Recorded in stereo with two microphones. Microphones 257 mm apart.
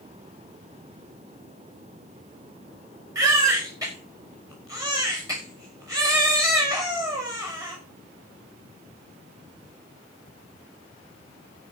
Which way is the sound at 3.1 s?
15° right (ahead or behind).